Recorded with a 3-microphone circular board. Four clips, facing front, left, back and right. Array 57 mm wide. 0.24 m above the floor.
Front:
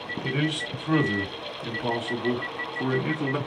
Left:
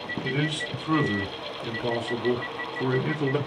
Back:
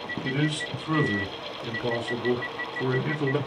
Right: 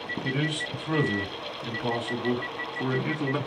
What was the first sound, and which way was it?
A man speaking, 5° left.